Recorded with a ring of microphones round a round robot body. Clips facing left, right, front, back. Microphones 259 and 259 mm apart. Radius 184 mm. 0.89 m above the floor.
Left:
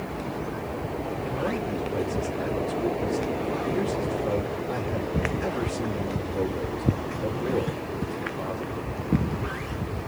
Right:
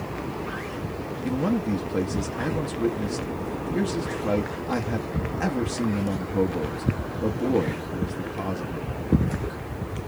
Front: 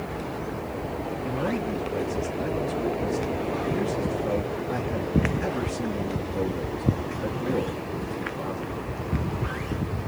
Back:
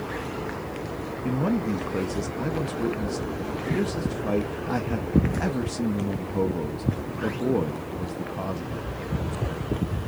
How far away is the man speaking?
About 0.7 m.